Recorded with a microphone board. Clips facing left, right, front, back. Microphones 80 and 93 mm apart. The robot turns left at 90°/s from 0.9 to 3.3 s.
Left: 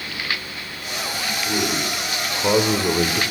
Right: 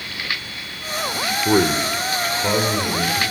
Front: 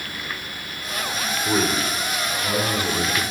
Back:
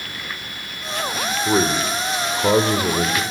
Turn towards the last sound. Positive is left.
turn(degrees=90)